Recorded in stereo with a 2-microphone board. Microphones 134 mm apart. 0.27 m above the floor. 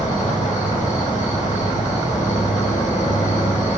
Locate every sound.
0.0 s an insect: 75° left (ahead or behind), 1.2 m